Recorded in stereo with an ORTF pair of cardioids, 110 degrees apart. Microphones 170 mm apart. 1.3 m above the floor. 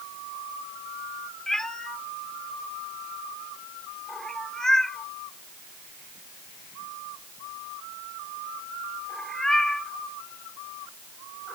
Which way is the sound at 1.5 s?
5° left.